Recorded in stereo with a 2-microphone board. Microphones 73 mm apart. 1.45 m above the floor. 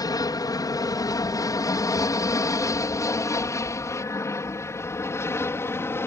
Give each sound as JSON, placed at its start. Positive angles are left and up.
{"t": 0.0, "sound": "an aircraft", "side_deg": 60}